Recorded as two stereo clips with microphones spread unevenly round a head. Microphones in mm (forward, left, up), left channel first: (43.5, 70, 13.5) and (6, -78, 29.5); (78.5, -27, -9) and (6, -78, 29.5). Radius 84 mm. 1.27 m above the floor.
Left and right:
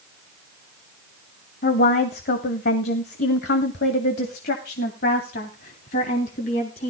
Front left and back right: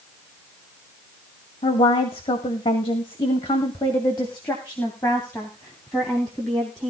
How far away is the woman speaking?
About 2 m.